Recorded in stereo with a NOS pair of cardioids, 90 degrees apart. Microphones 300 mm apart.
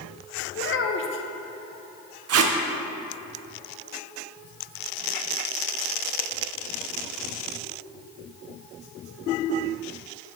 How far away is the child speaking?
About 1.0 m.